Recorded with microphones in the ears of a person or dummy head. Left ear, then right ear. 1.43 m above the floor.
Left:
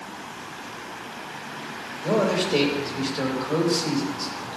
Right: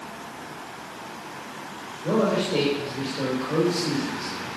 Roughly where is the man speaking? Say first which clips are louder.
Left 1 dB; left.